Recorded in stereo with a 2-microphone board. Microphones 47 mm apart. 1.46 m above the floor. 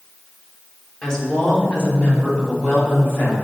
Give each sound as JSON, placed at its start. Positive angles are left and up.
{"t": 1.0, "sound": "a woman speaking", "side_deg": 20, "distance_m": 1.8}